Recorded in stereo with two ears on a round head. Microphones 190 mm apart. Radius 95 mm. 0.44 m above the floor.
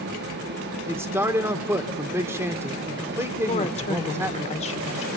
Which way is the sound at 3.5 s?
30° left (ahead or behind).